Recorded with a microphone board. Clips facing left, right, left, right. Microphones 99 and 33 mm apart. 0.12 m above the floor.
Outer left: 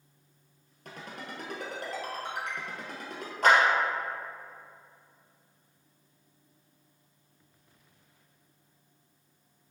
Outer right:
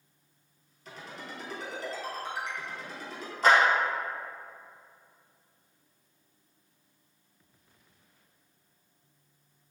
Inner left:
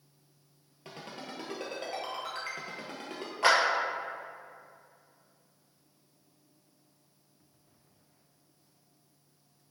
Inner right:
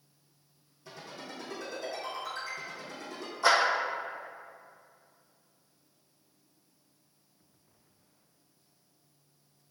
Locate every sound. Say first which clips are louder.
0.8 s a ringtone: outer left 1 dB, inner left 1 dB; 55° left (ahead or behind), 1.5 m
3.4 s a clap: even, even; 60° left (ahead or behind), 2.0 m